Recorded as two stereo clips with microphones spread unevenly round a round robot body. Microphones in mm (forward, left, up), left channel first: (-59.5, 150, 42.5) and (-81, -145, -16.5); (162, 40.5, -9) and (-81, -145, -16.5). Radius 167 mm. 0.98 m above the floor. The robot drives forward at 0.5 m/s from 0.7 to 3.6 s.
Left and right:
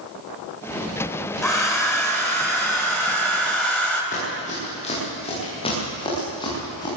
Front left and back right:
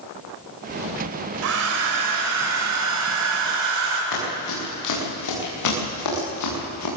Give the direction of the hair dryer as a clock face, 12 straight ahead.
6 o'clock.